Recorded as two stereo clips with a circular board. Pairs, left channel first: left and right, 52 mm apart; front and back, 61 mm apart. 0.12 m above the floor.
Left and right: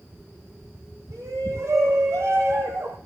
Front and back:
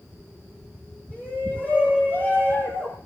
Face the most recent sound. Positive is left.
turn(degrees=-55)